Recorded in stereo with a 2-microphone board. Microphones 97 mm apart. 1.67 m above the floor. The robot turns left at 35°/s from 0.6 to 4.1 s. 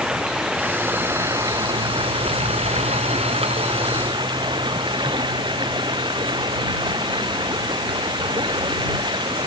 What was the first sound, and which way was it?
Running water, 5° right.